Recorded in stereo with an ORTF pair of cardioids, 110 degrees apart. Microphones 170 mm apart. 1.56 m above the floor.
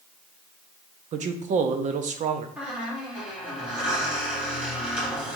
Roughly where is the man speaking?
Ahead right.